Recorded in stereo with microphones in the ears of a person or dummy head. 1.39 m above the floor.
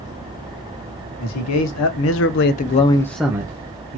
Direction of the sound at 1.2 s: 80° left.